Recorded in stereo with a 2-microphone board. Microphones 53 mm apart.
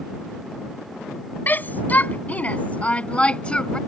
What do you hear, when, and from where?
1.5 s a shout: 35° left (ahead or behind); by 3.8 s 15° left (ahead or behind)